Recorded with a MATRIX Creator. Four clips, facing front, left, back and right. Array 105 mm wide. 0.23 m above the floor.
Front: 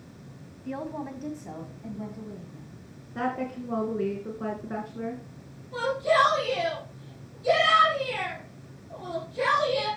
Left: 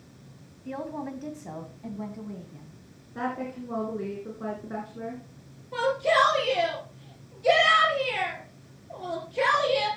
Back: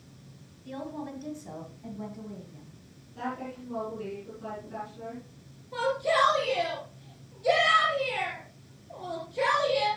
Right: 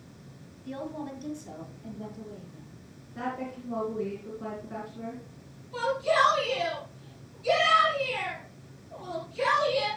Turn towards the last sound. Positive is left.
turn(degrees=105)